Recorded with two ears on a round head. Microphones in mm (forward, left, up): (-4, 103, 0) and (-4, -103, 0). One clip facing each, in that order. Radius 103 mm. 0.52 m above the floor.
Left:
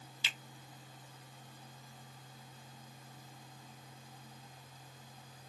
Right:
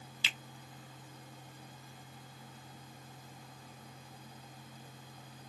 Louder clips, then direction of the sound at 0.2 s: Right 3 dB; 55° right (ahead or behind).